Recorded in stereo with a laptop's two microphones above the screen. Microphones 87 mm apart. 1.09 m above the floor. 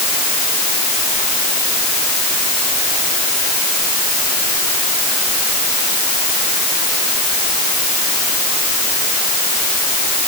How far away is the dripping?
I don't hear dripping.